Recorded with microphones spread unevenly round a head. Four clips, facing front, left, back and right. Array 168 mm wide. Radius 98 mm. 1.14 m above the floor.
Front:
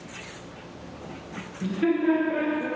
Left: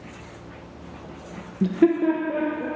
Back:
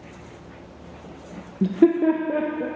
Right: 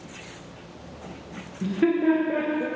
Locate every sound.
1.6 s laughter: 140° left, 1.0 m; by 2.7 s 160° right, 1.9 m